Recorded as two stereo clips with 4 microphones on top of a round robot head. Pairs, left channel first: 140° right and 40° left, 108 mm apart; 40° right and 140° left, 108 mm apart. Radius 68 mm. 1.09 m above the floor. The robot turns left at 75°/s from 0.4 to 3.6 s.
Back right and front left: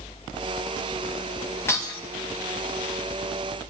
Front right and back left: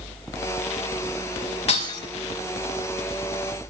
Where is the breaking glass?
70° right, 5 m; by 2.0 s 95° right, 5 m.